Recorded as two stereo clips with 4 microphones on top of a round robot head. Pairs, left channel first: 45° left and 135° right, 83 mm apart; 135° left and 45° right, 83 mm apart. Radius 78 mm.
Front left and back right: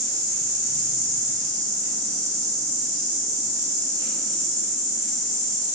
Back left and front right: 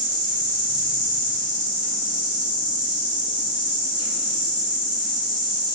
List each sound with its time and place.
0.0 s an insect: 80° right, 0.8 m